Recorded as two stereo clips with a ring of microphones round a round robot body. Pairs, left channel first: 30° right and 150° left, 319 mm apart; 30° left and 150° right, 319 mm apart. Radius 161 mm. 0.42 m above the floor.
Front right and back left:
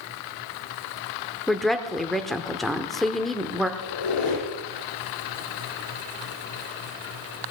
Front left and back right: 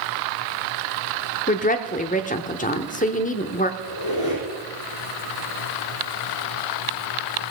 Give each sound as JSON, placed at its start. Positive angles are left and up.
{"t": 1.5, "sound": "a woman speaking", "azimuth_deg": 60, "distance_m": 0.8}
{"t": 3.8, "sound": "a squeak", "azimuth_deg": -5, "distance_m": 2.5}